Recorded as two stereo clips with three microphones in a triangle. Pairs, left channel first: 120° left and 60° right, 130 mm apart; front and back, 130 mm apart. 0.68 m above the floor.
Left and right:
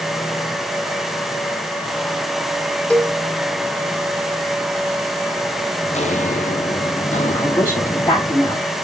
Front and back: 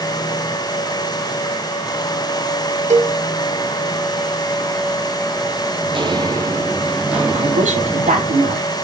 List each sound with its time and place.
2.9 s a cowbell: 160° right, 1.1 m
5.8 s footsteps: 140° left, 1.3 m; by 8.3 s 85° left, 3 m
7.3 s a woman speaking: 175° right, 3.5 m